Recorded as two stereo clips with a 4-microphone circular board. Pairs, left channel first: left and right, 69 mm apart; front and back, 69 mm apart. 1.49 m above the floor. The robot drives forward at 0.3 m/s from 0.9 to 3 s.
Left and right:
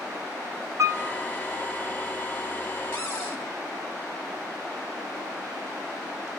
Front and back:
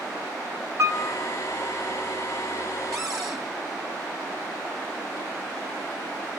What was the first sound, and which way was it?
A piano, 135° right.